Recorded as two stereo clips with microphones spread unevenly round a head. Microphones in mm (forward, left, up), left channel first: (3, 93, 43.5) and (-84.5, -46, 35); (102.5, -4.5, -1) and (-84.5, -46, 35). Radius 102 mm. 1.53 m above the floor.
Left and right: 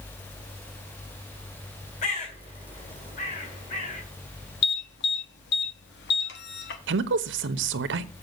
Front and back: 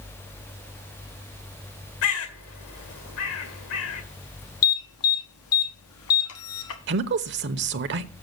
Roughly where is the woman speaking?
Behind right.